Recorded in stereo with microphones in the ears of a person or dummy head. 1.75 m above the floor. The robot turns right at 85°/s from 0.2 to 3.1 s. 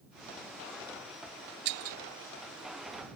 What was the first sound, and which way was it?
Breaking glass, 60° right (ahead or behind).